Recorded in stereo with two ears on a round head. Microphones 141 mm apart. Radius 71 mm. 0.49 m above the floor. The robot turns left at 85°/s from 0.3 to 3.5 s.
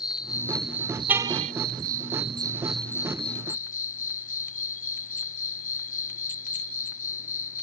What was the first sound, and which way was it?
An insect, 30° left.